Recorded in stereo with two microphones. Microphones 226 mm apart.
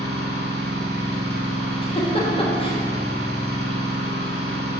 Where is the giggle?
25° left (ahead or behind), 1.2 m.